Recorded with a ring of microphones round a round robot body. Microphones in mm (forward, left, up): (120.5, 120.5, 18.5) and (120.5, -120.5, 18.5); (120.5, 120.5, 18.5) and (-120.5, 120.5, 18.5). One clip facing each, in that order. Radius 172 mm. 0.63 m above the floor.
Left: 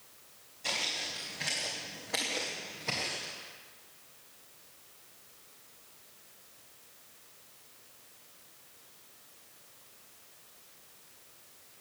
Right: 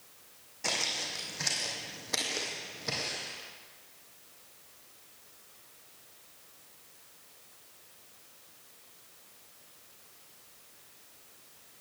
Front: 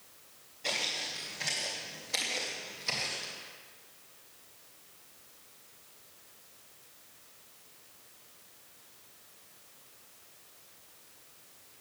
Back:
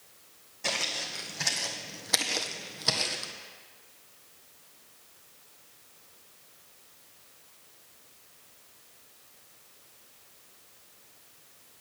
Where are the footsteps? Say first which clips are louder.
Right 3 dB, back 3 dB; 130° right, 1.9 m; by 3.3 s straight behind, 1.3 m.